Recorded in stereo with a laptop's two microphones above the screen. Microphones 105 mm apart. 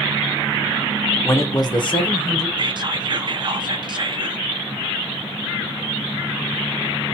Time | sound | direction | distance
1.2 | a man speaking | 25° left (ahead or behind) | 0.6 m
2.6 | whispering | 50° right (ahead or behind) | 0.6 m